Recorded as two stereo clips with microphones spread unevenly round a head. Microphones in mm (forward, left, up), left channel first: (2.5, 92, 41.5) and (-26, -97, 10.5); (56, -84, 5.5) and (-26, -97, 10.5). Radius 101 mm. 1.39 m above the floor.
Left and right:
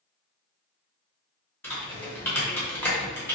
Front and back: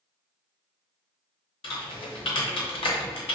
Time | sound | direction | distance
1.6 | typing on a keyboard | 5° left | 0.7 m